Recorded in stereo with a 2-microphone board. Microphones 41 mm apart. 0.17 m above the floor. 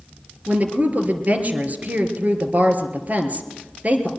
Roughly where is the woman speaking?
Right.